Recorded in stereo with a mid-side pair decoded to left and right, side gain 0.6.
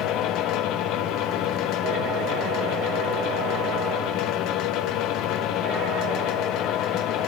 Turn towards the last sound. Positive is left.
turn(degrees=65)